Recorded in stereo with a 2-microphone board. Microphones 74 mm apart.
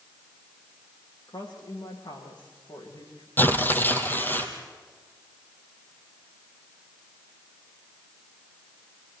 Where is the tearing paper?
25° left (ahead or behind), 2 m.